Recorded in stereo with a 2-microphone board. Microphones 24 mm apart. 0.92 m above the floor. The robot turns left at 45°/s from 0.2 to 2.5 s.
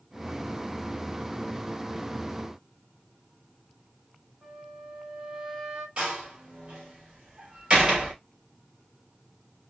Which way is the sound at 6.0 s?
40° right (ahead or behind).